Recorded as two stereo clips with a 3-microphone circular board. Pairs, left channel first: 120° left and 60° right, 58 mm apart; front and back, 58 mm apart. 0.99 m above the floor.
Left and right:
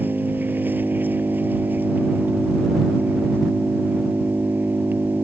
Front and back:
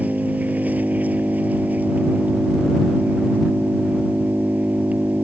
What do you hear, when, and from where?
0.0 s an engine running: 120° right